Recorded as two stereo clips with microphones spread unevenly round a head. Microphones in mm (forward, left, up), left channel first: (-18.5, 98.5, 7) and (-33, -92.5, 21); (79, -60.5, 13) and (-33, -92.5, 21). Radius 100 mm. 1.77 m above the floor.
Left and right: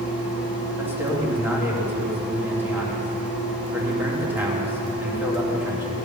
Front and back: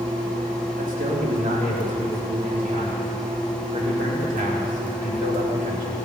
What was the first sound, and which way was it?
A man speaking, 175° right.